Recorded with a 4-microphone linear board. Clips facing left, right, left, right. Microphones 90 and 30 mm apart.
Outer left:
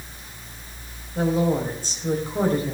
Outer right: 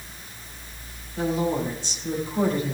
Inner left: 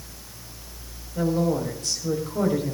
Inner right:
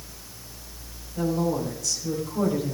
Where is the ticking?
No ticking in this recording.